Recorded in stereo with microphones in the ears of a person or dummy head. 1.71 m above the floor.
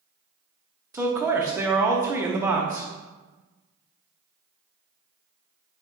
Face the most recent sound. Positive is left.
turn(degrees=-10)  # may be behind; listen again after turning